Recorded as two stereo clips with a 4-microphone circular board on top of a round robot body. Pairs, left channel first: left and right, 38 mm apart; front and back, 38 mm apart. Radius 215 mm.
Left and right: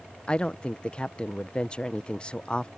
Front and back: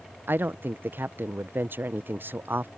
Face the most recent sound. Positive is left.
turn(degrees=155)